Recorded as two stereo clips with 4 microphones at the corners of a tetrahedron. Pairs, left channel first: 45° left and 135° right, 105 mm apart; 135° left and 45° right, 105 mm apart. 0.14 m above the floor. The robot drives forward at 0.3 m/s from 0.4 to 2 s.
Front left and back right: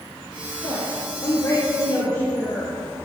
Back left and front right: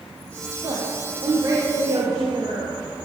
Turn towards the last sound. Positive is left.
turn(degrees=5)